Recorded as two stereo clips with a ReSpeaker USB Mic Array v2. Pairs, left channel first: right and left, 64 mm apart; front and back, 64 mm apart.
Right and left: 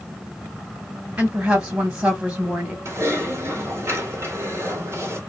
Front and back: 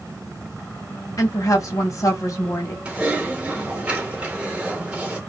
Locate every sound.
1.2 s a woman speaking: 30° left, 1.8 m
2.9 s typing on a keyboard: 110° left, 2 m